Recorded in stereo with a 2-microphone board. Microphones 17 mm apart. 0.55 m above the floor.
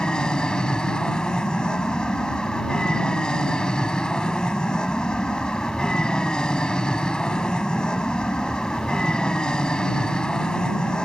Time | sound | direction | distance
0.0 | an aircraft | 50° left (ahead or behind) | ?